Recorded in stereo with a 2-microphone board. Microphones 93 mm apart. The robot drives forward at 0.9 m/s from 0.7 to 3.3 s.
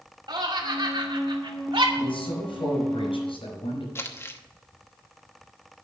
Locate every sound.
0.3 s laughter: 55° right (ahead or behind), 2.5 m; by 1.9 s 65° right (ahead or behind), 2 m
2.0 s a man speaking: 70° left (ahead or behind), 5 m; by 3.9 s 80° left, 5 m
4.0 s crumpling: 30° left (ahead or behind), 1.0 m